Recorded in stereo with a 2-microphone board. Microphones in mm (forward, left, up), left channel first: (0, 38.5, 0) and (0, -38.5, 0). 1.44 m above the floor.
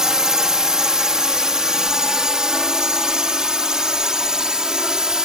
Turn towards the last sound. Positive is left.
turn(degrees=-10)  # may be behind; listen again after turning